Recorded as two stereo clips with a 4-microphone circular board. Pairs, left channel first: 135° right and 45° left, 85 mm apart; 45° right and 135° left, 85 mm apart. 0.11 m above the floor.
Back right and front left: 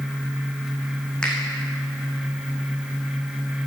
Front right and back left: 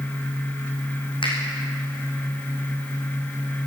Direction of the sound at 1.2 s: 55° right.